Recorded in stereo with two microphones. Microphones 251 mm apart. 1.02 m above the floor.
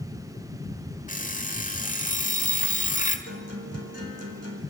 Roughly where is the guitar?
Right.